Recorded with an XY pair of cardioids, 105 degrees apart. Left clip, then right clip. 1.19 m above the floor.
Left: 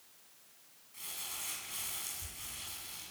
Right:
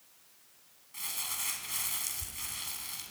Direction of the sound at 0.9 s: 55° right.